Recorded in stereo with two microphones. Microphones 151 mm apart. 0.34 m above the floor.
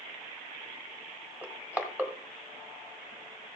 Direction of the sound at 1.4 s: 10° right (ahead or behind).